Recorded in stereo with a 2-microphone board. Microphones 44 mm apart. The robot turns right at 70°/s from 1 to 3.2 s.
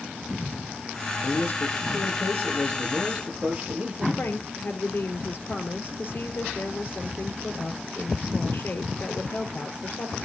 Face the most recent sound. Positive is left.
turn(degrees=50)  # may be behind; listen again after turning